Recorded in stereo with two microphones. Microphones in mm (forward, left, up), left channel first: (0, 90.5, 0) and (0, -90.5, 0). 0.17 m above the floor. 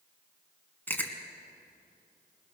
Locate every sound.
0.9 s chewing: 10° left (ahead or behind), 1.8 m